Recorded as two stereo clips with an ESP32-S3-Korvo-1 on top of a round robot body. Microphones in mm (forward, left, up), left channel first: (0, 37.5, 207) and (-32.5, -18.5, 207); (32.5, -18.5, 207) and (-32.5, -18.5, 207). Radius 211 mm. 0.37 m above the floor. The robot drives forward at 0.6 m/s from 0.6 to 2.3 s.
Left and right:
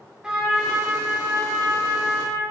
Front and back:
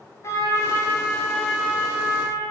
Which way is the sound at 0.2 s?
40° right.